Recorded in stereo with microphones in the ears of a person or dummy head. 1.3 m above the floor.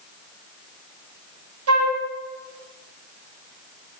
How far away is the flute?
About 1.6 m.